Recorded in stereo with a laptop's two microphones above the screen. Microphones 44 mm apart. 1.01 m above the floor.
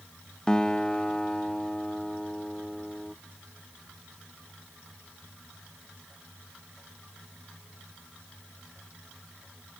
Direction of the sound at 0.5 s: 15° left (ahead or behind).